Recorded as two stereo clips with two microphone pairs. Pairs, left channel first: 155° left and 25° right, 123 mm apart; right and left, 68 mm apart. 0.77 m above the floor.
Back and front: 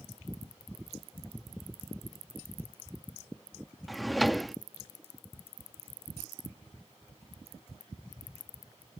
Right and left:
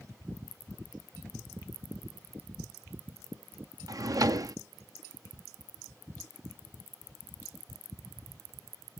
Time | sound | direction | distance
3.9 | a drawer | 65° left | ?